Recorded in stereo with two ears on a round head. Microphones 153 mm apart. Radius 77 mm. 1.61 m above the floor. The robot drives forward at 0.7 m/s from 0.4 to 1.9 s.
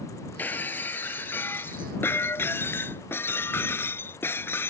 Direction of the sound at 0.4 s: 10° left (ahead or behind).